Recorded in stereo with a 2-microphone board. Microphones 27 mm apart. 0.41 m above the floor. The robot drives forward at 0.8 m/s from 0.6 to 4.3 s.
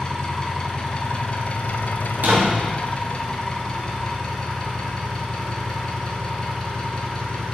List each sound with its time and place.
0.0 s an engine running: 30° left (ahead or behind), 1.4 m; by 7.5 s 20° left (ahead or behind), 1.9 m
2.1 s a door slam: 70° right (ahead or behind), 2.5 m